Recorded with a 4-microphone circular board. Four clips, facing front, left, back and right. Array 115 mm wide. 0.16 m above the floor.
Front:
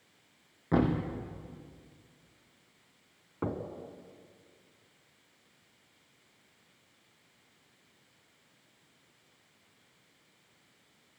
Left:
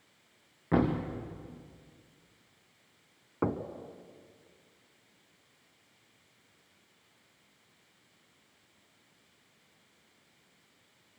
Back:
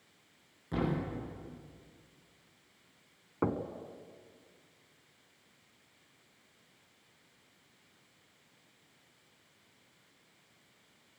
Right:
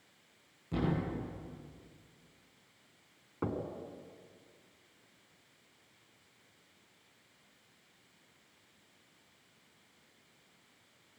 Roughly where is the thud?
Ahead left.